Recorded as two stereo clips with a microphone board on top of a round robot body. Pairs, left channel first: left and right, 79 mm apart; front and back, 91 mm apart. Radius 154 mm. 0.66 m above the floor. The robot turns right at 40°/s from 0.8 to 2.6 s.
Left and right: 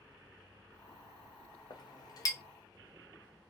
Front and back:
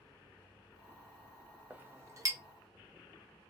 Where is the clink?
105° left, 0.7 m; by 2.4 s 135° left, 0.7 m.